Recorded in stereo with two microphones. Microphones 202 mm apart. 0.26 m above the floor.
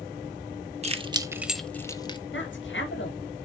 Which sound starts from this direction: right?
Keys jangling, at 0.8 s.